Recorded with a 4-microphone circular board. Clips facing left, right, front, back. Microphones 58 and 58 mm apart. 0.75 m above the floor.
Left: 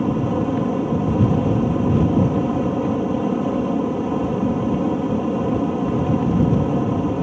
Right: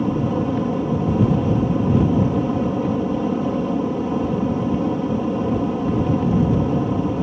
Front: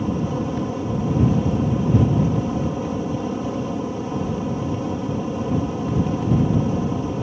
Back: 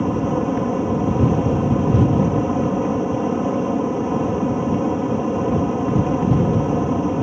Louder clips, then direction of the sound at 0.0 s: Even, back 4 dB; 165° left.